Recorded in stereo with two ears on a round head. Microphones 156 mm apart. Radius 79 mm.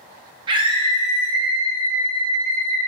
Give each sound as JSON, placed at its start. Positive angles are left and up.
{"t": 0.5, "sound": "a scream", "side_deg": -30, "distance_m": 0.7}